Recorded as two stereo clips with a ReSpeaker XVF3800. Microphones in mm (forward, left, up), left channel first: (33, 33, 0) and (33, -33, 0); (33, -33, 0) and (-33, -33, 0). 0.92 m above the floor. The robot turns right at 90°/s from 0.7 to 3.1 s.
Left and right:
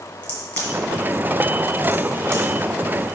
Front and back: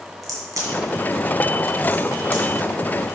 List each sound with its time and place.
0.2 s a crack: 150° left, 2 m; by 2.4 s 55° right, 2 m